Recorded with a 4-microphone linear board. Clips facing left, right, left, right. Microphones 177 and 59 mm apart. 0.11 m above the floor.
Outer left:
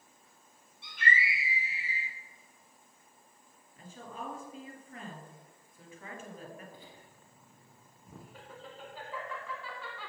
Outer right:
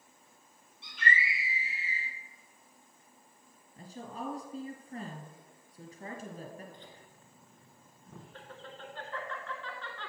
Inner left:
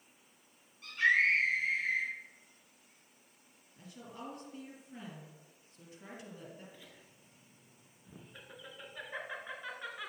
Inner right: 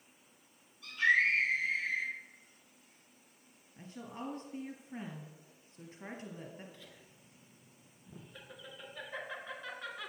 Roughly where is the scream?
Left.